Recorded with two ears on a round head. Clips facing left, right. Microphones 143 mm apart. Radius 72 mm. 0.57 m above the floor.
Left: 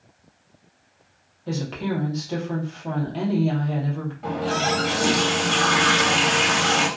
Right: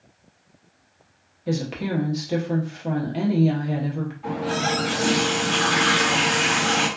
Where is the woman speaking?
15° right (ahead or behind), 0.7 m.